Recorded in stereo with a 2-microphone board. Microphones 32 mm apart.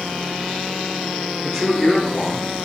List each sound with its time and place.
1.4 s a man speaking: 5° left (ahead or behind), 2.5 m; by 2.5 s 30° left (ahead or behind), 2.5 m